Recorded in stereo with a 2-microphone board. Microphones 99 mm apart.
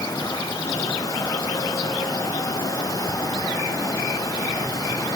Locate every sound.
Only background noise.